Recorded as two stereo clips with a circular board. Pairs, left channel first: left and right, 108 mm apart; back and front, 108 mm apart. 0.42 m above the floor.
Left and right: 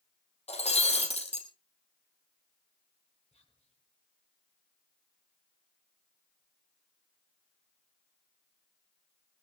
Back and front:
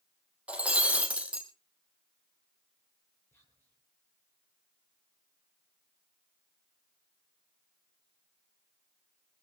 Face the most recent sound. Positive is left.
turn(degrees=110)